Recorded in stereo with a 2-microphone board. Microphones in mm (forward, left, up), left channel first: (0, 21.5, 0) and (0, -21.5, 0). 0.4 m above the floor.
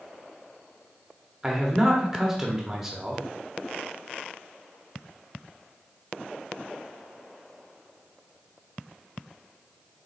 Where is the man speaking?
10° right (ahead or behind), 0.9 m.